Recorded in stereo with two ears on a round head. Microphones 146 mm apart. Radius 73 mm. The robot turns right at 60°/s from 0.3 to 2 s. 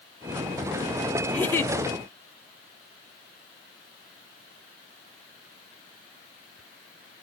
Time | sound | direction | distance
1.3 | a giggle | 10° left (ahead or behind) | 0.5 m